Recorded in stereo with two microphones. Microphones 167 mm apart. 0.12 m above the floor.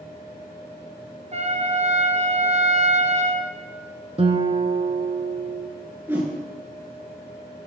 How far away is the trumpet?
About 1.4 m.